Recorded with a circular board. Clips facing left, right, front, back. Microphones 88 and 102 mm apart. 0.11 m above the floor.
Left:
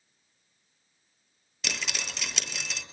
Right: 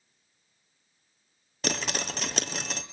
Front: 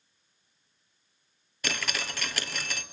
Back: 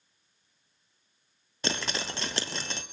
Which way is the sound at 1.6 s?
125° right.